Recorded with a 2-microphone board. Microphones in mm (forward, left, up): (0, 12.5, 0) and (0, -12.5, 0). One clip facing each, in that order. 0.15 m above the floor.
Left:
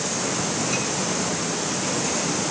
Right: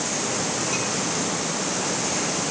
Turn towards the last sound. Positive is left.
No sound to turn to.